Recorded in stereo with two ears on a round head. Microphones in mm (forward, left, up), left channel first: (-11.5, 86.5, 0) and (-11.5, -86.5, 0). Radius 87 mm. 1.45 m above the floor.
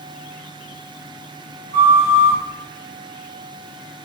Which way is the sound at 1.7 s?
15° left (ahead or behind).